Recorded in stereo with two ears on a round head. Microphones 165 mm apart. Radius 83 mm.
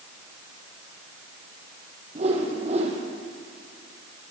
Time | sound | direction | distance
2.1 | a whoosh | 35° right (ahead or behind) | 4.5 m